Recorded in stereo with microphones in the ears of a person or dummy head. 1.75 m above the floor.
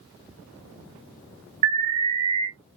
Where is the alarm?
35° right (ahead or behind), 1.2 m.